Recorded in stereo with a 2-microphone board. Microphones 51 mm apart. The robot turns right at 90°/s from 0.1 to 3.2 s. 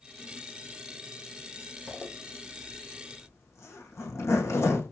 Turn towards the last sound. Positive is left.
turn(degrees=65)  # may be behind; listen again after turning